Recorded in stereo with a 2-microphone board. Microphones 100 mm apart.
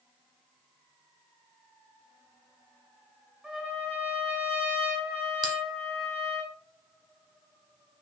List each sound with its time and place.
3.4 s a trumpet: 5° right (ahead or behind), 1.3 m
5.4 s a bell: 45° right (ahead or behind), 1.0 m